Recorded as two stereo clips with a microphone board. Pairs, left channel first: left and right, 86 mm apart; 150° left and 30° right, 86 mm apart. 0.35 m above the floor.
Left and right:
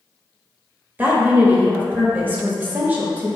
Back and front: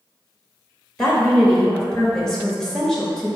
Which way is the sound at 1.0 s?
135° right.